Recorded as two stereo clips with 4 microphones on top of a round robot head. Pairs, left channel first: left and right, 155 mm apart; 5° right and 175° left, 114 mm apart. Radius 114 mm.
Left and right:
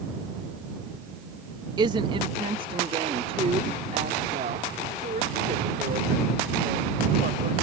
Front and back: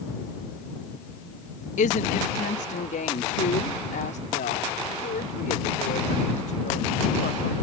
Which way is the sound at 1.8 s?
25° right.